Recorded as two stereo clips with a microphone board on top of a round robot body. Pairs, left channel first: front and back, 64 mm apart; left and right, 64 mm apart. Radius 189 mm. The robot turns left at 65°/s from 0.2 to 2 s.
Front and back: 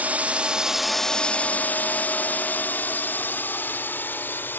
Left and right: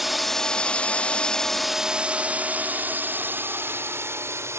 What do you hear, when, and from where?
0.0 s a drone: 175° right; by 4.6 s 55° right